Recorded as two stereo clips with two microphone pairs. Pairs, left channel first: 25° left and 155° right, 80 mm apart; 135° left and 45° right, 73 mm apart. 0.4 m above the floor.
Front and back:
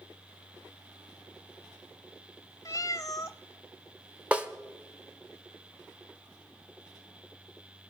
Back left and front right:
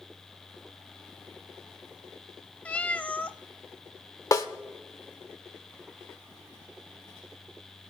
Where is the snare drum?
130° left, 0.9 m.